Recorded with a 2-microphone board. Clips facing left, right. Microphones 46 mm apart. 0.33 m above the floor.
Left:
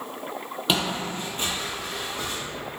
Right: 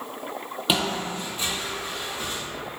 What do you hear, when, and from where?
0.7 s footsteps: 5° right (ahead or behind), 0.5 m; by 2.4 s 75° left (ahead or behind), 1.0 m